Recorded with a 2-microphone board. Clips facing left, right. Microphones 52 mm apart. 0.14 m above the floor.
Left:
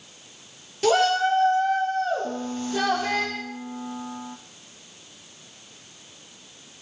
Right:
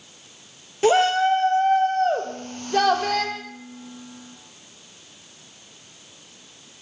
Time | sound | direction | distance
0.8 | a shout | 25° right (ahead or behind) | 3 m
2.2 | a piano | 70° left (ahead or behind) | 2 m